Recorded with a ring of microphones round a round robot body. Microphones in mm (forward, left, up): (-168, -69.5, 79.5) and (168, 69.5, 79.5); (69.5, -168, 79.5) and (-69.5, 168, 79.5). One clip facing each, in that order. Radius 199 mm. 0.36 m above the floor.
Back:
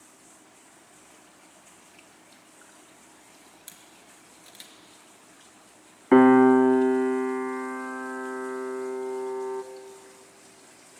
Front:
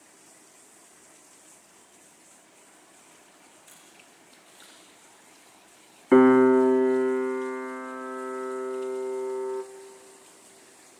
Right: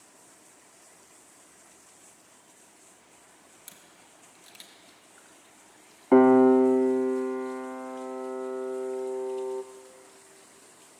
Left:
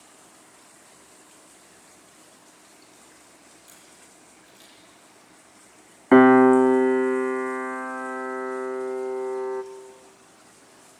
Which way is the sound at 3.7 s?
115° right.